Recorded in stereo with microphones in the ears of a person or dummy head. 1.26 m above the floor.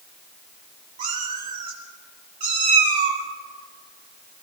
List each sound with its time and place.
1.0 s a cat meowing: 45° right (ahead or behind), 3.5 m